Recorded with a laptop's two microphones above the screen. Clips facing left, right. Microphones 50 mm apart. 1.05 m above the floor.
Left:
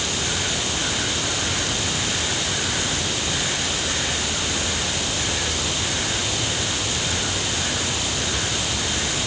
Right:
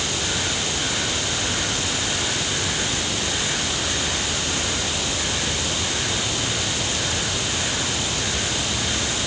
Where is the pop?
I don't hear a pop.